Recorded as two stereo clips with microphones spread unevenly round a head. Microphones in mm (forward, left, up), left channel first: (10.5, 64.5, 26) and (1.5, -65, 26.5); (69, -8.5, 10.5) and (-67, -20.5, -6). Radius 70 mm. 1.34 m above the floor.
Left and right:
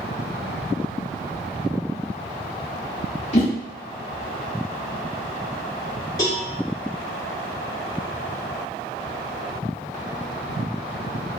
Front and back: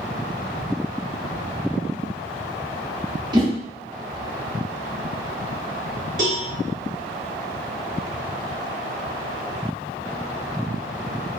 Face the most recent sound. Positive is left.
turn(degrees=150)